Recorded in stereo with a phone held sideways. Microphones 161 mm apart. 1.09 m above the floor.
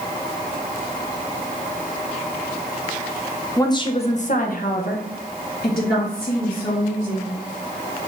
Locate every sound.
3.6 s a woman speaking: 20° left (ahead or behind), 0.7 m; by 7.4 s 60° left (ahead or behind), 2 m